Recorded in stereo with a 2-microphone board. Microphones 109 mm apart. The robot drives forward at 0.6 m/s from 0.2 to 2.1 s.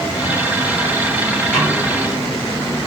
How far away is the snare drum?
About 3.5 m.